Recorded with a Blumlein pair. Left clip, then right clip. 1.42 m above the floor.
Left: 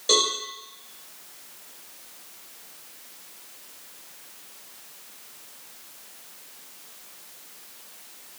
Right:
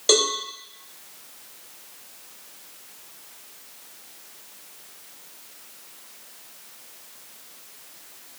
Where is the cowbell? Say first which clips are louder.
Right 2 dB; 65° right, 1.7 m.